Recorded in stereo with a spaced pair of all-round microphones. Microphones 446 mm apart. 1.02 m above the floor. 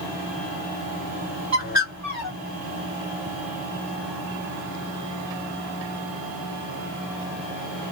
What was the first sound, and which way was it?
A bird, 35° right (ahead or behind).